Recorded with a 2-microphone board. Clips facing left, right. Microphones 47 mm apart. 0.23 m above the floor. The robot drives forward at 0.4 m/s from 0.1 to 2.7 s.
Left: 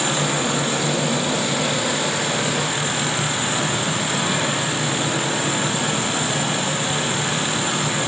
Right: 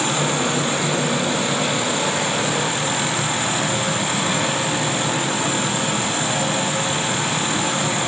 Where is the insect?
20° right (ahead or behind), 8.5 m.